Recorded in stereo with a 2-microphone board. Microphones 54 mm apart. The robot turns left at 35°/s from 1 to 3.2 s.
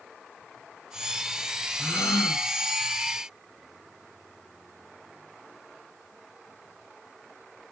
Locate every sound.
1.8 s a gasp: 75° left (ahead or behind), 0.8 m